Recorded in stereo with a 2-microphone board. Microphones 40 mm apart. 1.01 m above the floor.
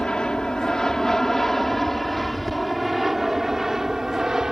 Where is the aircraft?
25° left (ahead or behind); by 4.5 s 15° right (ahead or behind).